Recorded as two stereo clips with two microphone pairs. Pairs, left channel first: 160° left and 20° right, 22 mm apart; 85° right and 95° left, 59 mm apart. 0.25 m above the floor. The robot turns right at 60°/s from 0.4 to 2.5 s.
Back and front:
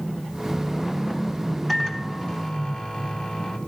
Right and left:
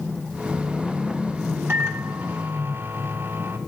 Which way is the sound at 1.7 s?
75° left.